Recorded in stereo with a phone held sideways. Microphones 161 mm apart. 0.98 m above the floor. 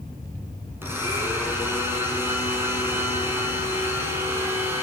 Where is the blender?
15° right (ahead or behind), 9 m.